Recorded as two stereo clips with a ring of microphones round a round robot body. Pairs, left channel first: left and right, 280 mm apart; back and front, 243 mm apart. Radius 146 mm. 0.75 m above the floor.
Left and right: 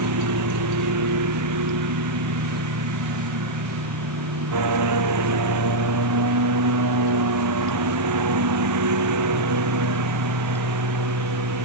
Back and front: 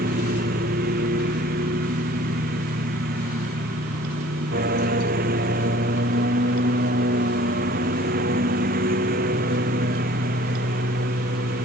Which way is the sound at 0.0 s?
60° right.